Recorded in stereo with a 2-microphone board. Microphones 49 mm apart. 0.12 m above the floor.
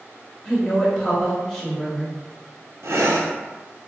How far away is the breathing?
About 0.5 m.